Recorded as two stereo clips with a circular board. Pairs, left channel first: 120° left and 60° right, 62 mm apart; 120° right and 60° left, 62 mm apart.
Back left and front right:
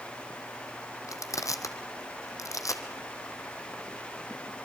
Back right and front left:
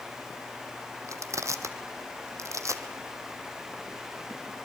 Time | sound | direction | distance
1.1 | crushing | 95° left | 2.0 m